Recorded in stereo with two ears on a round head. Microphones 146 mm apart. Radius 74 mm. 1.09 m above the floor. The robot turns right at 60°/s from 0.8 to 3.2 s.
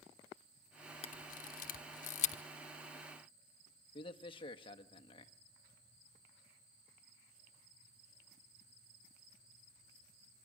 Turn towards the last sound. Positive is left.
turn(degrees=30)  # may be behind; listen again after turning